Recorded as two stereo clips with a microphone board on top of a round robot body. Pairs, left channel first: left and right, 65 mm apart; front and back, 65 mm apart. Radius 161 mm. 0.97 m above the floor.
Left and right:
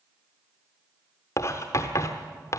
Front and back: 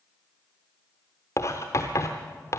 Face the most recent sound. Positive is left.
turn(degrees=55)